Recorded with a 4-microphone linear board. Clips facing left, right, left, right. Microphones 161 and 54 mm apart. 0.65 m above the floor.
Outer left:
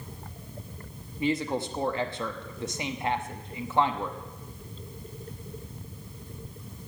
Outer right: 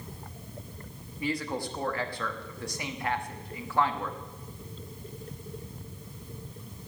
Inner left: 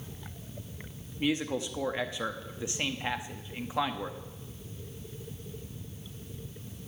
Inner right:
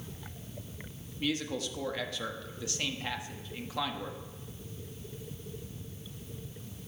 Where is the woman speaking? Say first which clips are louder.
Outer left 4 dB, inner left 3 dB; 20° left (ahead or behind), 0.9 m.